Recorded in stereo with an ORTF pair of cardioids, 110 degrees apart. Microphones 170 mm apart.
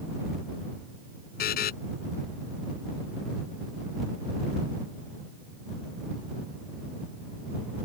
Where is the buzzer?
60° left.